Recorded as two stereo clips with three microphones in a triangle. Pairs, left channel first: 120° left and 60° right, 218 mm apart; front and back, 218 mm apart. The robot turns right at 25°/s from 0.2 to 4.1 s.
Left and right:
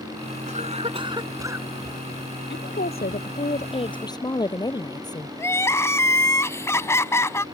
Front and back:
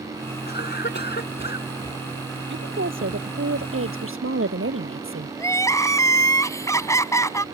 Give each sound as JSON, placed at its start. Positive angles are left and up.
{"t": 0.5, "sound": "a cough", "azimuth_deg": -15}
{"t": 2.5, "sound": "a woman speaking", "azimuth_deg": 150}
{"t": 5.4, "sound": "crying", "azimuth_deg": 55}